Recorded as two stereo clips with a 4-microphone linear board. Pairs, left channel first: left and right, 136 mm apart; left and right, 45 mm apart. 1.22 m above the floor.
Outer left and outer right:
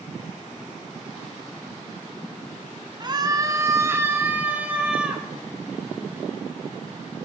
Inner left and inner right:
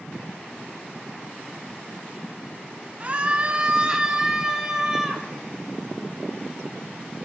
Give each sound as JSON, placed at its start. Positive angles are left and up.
{"t": 3.0, "sound": "a scream", "side_deg": -35, "distance_m": 1.8}